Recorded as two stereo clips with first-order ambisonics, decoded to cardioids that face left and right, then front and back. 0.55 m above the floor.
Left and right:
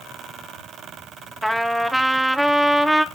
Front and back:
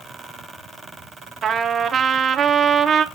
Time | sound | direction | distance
1.4 | a trumpet | straight behind | 0.7 m